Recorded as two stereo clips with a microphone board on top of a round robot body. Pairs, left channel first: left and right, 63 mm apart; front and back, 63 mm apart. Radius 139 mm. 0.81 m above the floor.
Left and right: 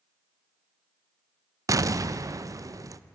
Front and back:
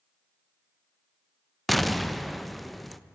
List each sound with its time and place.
1.7 s an explosion: 90° right, 0.6 m